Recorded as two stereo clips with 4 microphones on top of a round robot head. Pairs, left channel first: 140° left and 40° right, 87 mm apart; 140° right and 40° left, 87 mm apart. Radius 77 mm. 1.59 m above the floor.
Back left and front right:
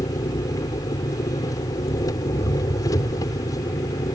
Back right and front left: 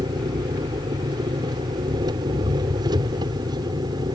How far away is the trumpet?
No trumpet in this recording.